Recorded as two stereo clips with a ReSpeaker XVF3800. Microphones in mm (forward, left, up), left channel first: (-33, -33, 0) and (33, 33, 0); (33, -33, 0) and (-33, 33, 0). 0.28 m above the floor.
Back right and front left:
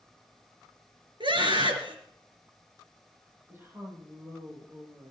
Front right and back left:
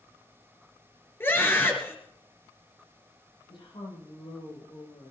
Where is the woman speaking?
20° right, 9.5 m.